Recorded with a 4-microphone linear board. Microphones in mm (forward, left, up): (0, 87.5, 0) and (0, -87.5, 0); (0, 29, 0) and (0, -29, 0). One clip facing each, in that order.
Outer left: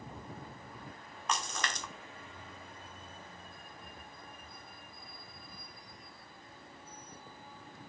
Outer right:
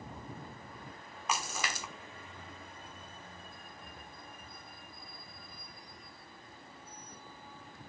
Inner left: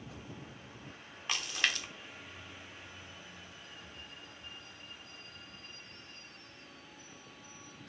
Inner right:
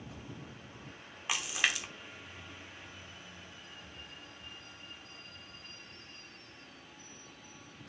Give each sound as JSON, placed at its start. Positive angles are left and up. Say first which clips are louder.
{"t": 1.3, "sound": "a splash", "louder": "even, inner right 1 dB", "side_deg": -10, "distance_m": 1.0}